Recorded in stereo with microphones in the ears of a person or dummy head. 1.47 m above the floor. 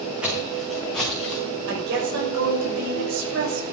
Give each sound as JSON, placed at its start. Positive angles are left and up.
{"t": 0.2, "sound": "footsteps", "side_deg": 0, "distance_m": 5.0}
{"t": 1.7, "sound": "a woman speaking", "side_deg": -70, "distance_m": 6.0}